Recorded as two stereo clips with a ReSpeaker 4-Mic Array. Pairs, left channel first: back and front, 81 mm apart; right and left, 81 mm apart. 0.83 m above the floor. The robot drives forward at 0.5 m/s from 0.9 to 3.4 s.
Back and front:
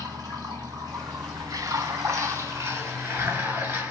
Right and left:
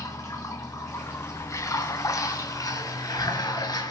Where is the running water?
40° right, 3 m; by 3.9 s 65° right, 2 m.